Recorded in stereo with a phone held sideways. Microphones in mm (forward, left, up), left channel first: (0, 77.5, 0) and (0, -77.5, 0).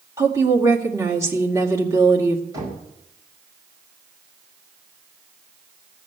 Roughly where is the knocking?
Right.